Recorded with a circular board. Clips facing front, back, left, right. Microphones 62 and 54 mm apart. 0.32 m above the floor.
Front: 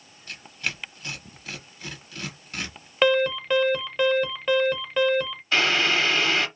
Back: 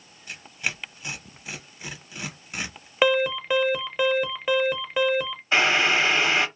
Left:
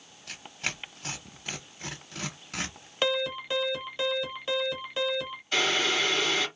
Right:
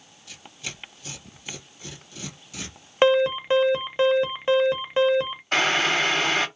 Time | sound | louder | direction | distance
0.3 | tearing paper | back 1 dB, left 4 dB | 105° left | 0.9 m
3.0 | an alarm | front 1 dB, right 10 dB | 105° right | 0.7 m
5.5 | boiling | back 2 dB, right 5 dB | 115° right | 0.8 m